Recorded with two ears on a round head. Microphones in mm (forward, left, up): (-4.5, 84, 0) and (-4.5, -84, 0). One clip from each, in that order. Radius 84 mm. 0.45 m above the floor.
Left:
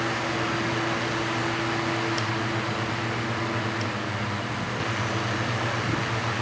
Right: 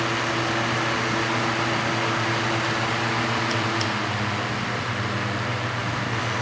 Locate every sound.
Only background noise.